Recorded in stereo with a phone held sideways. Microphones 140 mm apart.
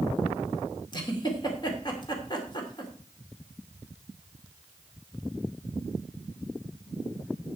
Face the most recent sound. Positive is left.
turn(degrees=35)  # may be behind; listen again after turning